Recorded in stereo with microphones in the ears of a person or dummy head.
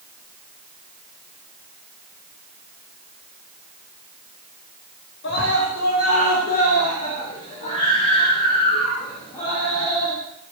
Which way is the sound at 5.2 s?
65° left (ahead or behind).